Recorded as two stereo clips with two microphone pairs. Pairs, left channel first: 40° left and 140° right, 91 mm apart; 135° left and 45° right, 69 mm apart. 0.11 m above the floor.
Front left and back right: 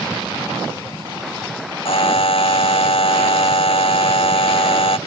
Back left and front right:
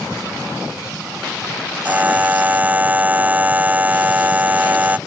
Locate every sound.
1.9 s a buzzer: 25° left